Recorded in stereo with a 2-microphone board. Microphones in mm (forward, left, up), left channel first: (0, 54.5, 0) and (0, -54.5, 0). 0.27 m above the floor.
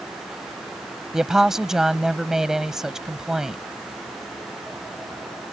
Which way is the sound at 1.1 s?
5° right (ahead or behind).